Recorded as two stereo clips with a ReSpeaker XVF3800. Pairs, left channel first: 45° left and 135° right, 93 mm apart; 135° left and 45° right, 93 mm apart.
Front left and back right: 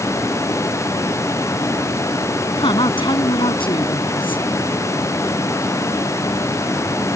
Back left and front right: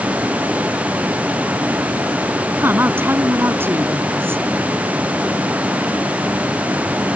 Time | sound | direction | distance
2.6 | a woman speaking | 20° left | ?